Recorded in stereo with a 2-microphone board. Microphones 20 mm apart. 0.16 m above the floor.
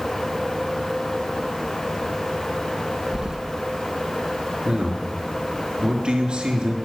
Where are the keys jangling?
40° right (ahead or behind), 1.1 m.